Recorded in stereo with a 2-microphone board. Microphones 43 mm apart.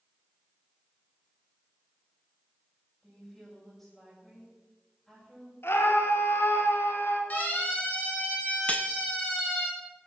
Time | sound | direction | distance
3.0 | a woman speaking | 5° left (ahead or behind) | 7.5 m
5.6 | a scream | 65° left (ahead or behind) | 3 m
7.3 | a siren | 40° left (ahead or behind) | 7.5 m
8.7 | cutlery clinking | 30° left (ahead or behind) | 0.6 m